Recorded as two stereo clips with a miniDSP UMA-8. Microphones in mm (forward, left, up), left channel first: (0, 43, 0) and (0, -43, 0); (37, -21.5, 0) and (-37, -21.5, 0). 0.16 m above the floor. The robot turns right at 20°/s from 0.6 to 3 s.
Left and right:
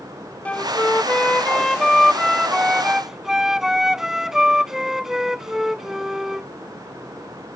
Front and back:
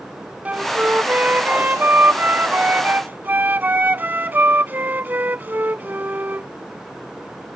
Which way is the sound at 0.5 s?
145° left.